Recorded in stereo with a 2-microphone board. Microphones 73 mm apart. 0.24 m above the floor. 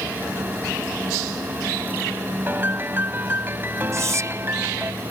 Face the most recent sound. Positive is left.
turn(degrees=-40)  # may be behind; listen again after turning